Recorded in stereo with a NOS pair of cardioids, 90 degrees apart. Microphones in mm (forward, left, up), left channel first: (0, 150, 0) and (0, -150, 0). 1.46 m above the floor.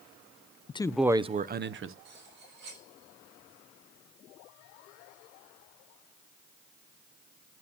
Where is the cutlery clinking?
60° right, 4 m.